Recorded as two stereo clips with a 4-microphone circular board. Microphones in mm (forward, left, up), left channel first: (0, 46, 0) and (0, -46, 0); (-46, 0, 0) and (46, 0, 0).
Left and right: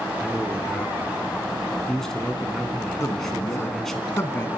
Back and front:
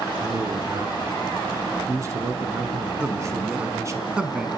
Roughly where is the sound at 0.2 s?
Ahead.